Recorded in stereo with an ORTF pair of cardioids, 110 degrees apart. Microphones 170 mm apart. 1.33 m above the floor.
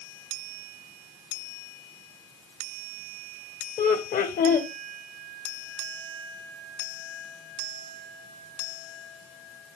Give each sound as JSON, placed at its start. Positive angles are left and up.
{"t": 3.8, "sound": "laughter", "azimuth_deg": 50, "distance_m": 1.0}